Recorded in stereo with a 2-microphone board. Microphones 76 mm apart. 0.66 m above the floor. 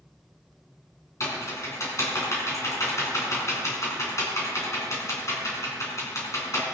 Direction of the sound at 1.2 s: 40° left (ahead or behind).